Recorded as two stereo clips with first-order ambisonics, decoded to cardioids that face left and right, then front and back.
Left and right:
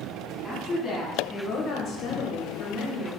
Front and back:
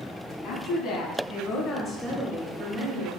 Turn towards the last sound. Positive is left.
turn(degrees=140)